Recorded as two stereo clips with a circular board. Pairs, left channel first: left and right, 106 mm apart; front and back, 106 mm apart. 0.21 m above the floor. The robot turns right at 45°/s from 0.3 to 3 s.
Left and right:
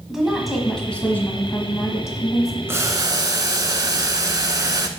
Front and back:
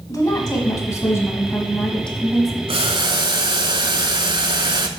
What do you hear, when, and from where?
0.1 s a woman speaking: 5° right, 1.3 m; by 2.6 s 95° left, 1.3 m
2.7 s boiling: 155° right, 0.6 m; by 4.9 s 140° right, 0.6 m